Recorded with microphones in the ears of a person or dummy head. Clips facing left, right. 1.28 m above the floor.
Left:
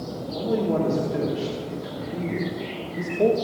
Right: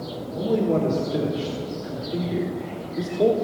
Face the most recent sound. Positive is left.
turn(degrees=0)  # may be behind; listen again after turning